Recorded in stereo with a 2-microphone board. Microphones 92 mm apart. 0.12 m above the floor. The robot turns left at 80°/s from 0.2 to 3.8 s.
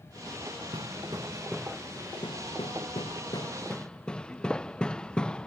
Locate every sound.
0.7 s hammering: 75° right (ahead or behind); by 5.5 s 10° left (ahead or behind)